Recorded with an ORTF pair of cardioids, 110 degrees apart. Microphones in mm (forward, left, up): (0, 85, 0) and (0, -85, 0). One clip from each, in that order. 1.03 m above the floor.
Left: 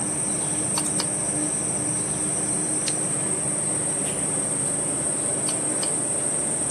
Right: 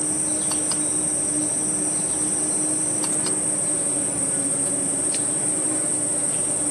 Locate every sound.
0.0 s an insect: 60° right, 0.9 m